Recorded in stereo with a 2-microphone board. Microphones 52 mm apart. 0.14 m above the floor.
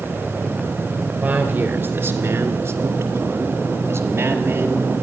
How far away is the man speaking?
About 2.5 m.